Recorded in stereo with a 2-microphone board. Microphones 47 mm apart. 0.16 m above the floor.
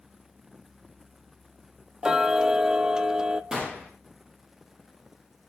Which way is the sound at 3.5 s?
15° right (ahead or behind).